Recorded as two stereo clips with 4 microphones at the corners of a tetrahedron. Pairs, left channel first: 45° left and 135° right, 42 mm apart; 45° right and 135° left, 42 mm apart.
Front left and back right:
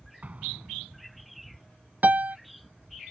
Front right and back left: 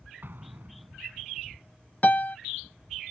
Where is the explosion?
170° left.